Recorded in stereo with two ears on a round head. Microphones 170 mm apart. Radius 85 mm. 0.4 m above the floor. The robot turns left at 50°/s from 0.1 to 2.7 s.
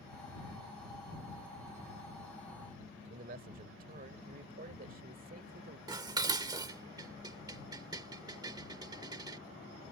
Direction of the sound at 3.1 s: 45° right (ahead or behind).